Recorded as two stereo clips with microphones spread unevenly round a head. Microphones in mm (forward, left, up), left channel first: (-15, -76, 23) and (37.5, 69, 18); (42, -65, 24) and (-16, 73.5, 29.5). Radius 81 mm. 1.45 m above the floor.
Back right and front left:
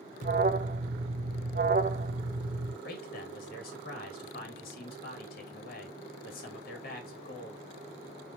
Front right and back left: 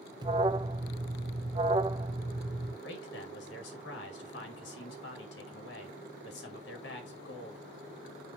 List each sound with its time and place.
0.2 s an alarm: 65° left, 0.6 m
2.8 s a man speaking: 80° right, 2.5 m